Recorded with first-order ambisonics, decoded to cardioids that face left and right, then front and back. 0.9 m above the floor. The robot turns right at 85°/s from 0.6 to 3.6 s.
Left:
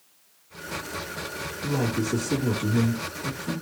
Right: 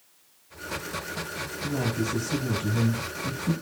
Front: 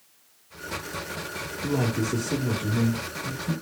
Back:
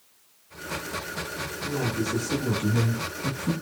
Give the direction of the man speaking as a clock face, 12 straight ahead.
11 o'clock.